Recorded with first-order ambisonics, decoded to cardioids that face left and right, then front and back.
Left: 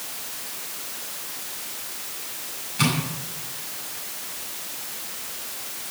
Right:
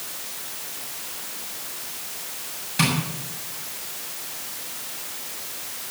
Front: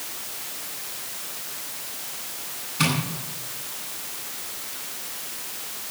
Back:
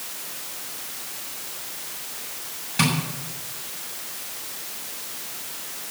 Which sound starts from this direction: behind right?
Tapping, at 2.8 s.